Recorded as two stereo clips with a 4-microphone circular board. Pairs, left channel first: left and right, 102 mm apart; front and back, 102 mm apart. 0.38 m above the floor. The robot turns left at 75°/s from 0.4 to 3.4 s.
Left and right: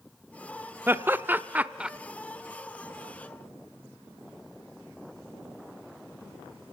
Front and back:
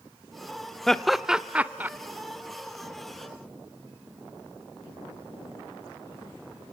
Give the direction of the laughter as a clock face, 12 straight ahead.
3 o'clock.